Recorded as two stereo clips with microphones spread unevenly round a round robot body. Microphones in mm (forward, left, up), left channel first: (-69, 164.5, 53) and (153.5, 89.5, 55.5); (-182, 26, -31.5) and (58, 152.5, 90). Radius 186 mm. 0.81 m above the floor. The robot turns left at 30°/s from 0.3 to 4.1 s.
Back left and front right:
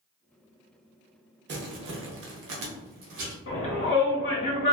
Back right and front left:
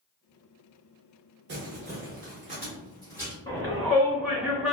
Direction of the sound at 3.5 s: 150° left.